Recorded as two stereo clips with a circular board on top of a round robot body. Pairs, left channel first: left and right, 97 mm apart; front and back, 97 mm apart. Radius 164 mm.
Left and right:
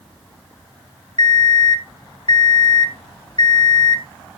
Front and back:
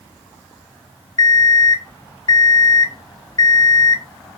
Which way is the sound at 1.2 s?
50° left.